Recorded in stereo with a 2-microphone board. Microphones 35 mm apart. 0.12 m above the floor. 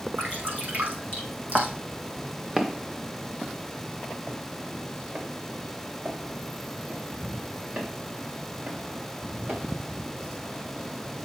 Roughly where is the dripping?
Right.